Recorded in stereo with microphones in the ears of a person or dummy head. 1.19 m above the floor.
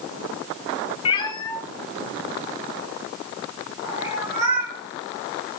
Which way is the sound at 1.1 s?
35° left (ahead or behind).